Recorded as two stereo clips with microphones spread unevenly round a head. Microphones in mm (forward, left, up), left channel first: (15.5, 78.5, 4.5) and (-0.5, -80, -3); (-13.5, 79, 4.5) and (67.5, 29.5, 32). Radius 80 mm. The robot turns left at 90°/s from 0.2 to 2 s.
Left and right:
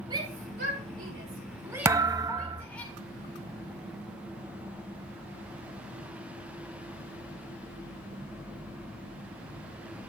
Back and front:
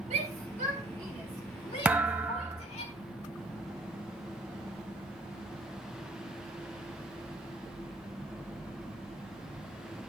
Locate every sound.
0.1 s a shout: 30° right, 3 m; by 2.9 s 165° left, 3 m
1.9 s a thud: 35° right, 0.6 m; by 2.7 s 50° right, 0.6 m